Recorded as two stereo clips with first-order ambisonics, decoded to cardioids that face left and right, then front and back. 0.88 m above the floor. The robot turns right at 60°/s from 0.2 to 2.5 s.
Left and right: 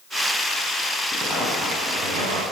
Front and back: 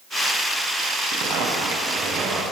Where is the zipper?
175° left, 7 m; by 2.4 s 105° right, 7 m.